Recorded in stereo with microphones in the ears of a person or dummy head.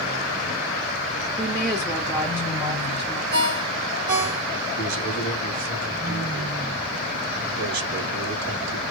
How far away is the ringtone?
About 3.5 m.